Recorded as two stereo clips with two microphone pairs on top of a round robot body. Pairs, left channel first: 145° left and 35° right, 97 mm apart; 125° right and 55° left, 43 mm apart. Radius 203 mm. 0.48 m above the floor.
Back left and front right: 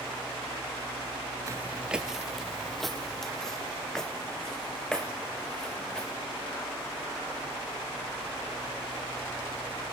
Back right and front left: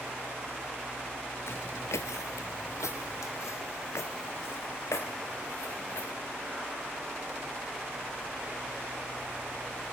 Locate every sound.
1.5 s footsteps: 95° right, 0.6 m; by 6.1 s 130° right, 5 m